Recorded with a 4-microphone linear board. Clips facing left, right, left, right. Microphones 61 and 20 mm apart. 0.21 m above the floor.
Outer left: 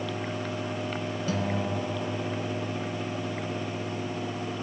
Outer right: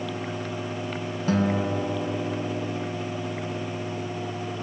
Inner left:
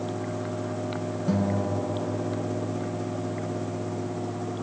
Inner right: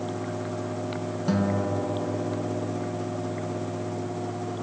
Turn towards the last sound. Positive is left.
turn(degrees=-40)  # may be behind; listen again after turning